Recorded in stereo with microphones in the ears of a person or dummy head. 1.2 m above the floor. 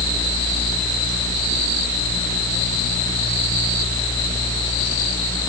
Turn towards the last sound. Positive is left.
No sound to turn to.